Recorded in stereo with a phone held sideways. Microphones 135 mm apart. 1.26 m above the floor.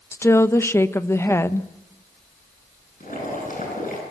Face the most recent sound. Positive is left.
turn(degrees=80)